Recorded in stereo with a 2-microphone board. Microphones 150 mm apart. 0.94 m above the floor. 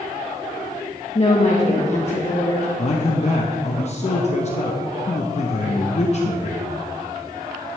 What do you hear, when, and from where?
1.1 s a woman speaking: 45° left (ahead or behind), 1.1 m
2.8 s a man speaking: 45° left (ahead or behind), 0.8 m